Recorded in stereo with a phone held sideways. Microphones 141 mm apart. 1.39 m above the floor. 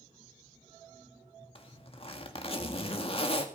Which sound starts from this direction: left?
A zipper, at 1.6 s.